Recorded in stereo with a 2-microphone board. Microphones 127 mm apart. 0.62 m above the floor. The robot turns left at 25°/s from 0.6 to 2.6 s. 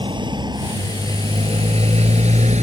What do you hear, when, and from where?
0.0 s a motorcycle: 40° right (ahead or behind); by 2.6 s 60° right (ahead or behind)